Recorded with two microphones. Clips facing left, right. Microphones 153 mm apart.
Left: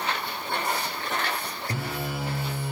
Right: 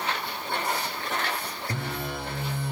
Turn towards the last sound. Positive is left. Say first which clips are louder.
# left 1 dB
turn(degrees=10)  # may be behind; listen again after turning